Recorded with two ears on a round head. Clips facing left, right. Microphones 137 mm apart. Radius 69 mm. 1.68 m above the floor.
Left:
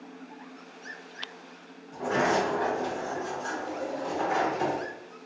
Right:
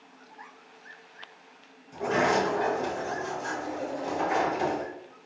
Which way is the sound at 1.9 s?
20° right (ahead or behind).